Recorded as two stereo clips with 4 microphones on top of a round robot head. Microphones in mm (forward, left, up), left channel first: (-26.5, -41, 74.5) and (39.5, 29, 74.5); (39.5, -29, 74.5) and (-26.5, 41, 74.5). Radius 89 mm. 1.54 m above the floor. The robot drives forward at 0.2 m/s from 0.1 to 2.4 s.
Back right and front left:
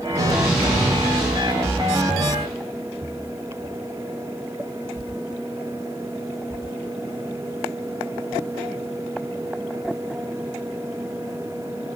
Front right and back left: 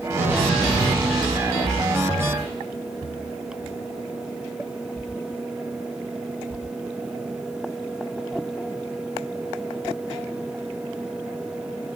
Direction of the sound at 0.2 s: 80° left.